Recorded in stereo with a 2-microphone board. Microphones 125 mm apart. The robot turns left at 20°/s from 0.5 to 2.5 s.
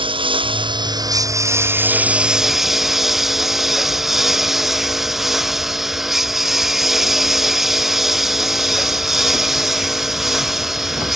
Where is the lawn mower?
140° right; by 11.2 s straight behind.